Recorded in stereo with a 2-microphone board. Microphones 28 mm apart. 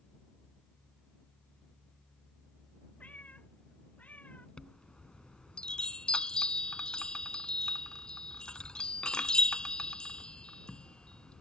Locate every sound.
3.0 s a cat meowing: 70° left (ahead or behind)
4.6 s a chime: 30° left (ahead or behind)